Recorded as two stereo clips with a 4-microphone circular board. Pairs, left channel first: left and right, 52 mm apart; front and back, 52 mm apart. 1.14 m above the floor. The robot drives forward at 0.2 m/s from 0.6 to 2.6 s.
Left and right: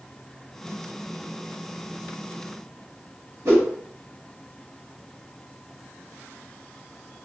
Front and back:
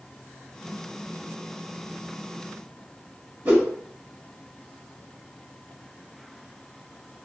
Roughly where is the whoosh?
Behind right.